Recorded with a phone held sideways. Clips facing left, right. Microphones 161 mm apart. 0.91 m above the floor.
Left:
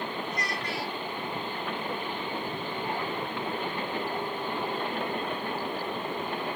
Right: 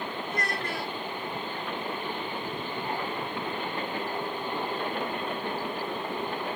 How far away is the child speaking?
About 1.3 m.